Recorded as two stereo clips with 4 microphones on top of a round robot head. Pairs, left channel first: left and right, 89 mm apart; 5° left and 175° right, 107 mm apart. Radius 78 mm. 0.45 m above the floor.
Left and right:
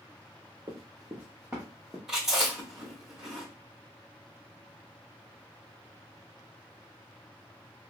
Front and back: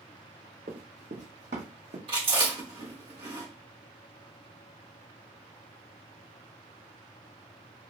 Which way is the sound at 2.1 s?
175° right.